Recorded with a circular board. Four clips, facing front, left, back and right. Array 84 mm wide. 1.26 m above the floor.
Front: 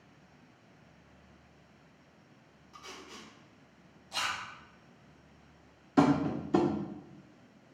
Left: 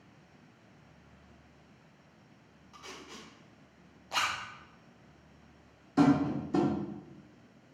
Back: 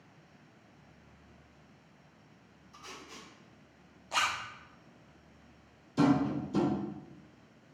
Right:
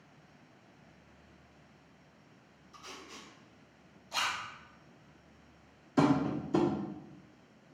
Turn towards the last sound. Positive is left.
turn(degrees=0)